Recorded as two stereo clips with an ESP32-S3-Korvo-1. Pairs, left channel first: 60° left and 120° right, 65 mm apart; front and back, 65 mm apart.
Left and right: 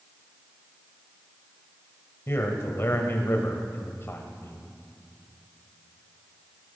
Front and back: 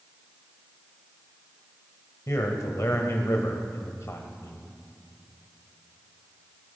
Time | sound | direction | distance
2.3 | a man speaking | 20° left | 1.6 m